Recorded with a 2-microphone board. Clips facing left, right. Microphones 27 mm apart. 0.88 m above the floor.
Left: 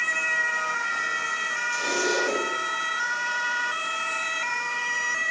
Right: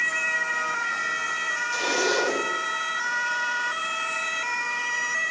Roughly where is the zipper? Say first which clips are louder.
Right 2 dB; right.